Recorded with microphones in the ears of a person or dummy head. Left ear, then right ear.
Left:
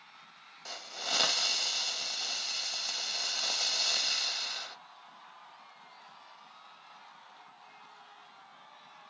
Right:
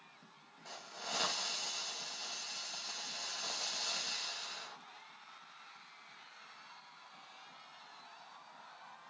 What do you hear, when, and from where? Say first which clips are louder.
0.7 s a hiss: left 8 dB; 40° left (ahead or behind), 0.6 m